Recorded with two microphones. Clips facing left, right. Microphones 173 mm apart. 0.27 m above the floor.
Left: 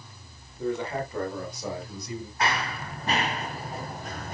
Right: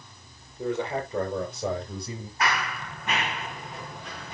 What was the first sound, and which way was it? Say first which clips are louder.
A man speaking: right 1 dB; 20° right (ahead or behind).